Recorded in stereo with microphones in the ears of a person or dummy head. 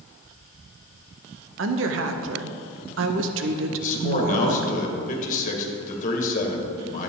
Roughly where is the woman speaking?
Right.